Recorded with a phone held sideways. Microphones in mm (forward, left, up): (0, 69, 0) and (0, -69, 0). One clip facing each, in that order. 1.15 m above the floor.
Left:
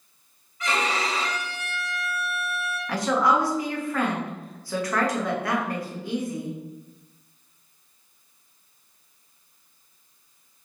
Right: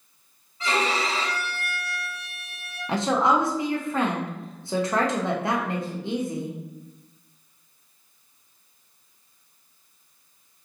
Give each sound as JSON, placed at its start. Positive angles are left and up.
{"t": 0.6, "sound": "a violin", "side_deg": -30, "distance_m": 1.0}
{"t": 2.9, "sound": "a woman speaking", "side_deg": -25, "distance_m": 0.6}